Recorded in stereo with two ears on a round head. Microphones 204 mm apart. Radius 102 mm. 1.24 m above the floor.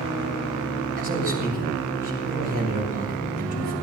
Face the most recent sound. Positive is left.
turn(degrees=-45)  # may be behind; listen again after turning